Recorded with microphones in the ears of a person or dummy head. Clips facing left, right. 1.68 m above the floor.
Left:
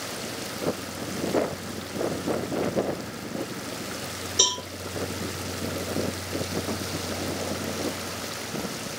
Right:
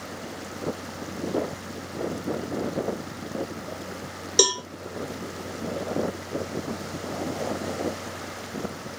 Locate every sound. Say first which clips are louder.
4.4 s a cowbell: right 8 dB; 90° right, 1.5 m